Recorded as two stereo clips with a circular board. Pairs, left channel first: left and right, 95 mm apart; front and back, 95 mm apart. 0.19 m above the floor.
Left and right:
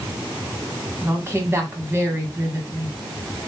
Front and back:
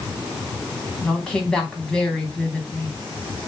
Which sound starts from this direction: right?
A woman speaking, at 1.0 s.